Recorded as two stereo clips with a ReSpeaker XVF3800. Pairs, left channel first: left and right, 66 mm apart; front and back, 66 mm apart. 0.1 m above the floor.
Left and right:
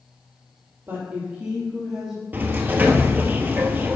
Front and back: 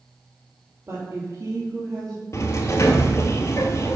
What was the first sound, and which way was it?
A woman speaking, 140° right.